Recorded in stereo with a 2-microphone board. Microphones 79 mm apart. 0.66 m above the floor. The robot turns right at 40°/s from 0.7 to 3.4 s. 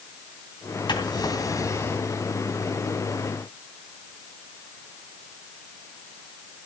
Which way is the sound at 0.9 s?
110° left.